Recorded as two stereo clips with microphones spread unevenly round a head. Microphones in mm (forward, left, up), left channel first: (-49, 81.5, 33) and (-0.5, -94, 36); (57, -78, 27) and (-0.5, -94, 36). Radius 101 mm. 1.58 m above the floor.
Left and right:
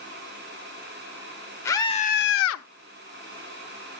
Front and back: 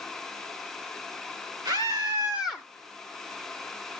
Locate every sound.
1.6 s a scream: straight behind, 1.1 m; by 2.6 s 90° left, 0.8 m